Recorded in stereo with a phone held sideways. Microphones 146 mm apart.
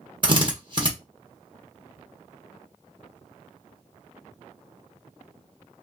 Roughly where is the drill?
Right.